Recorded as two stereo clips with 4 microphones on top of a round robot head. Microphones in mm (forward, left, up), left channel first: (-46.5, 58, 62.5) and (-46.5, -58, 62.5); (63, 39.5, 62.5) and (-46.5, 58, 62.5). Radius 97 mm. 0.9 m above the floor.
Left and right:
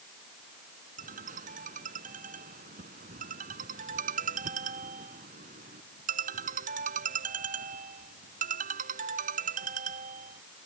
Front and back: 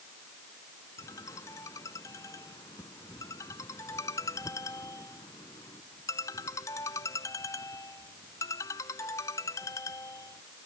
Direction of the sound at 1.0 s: 80° right.